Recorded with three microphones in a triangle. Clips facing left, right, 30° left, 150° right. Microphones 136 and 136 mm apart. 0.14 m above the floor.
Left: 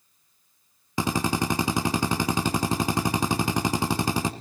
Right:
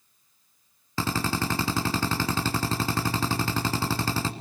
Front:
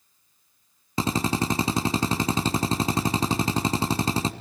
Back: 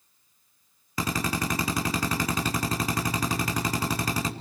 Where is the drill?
40° left, 1.7 m.